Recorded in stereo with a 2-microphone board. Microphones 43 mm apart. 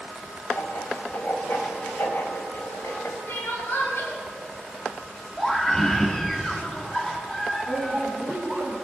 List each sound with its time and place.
0.5 s writing: 65° left (ahead or behind), 3.5 m
3.3 s crying: 60° left (ahead or behind), 7.5 m
5.4 s a scream: 15° left (ahead or behind), 2 m
7.7 s a woman speaking: 60° left (ahead or behind), 10 m